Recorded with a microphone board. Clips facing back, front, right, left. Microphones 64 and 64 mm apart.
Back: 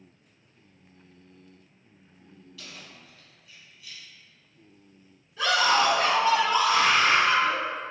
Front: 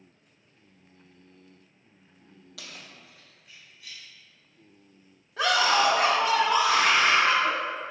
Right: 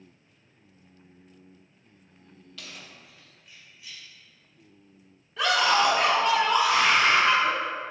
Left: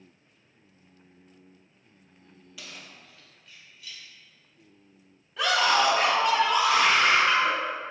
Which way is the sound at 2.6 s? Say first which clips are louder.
Front 1 dB, even; 5° left.